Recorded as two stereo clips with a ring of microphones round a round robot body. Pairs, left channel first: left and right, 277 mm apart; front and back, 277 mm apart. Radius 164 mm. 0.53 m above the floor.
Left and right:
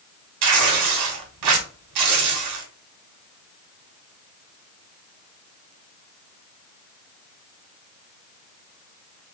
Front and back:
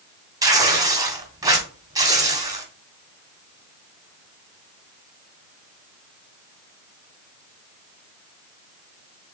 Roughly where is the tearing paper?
Right.